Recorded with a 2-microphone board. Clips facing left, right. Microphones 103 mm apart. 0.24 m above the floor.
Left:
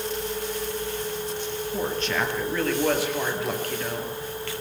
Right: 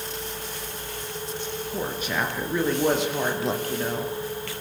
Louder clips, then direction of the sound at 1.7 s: Left 2 dB; 10° right (ahead or behind).